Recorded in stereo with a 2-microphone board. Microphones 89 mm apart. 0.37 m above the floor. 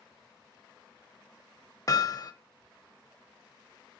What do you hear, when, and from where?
1.9 s hammering: 40° left (ahead or behind), 0.9 m